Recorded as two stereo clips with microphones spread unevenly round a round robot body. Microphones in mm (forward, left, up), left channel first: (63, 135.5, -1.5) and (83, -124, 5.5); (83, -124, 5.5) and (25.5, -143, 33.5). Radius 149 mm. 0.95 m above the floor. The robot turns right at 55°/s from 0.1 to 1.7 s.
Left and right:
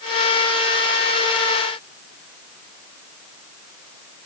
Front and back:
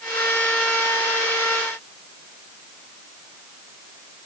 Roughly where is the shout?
I don't hear a shout.